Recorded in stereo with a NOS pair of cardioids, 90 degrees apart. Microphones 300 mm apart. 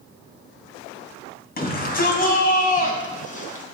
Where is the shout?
30° left, 6 m; by 3.6 s 25° left, 5 m.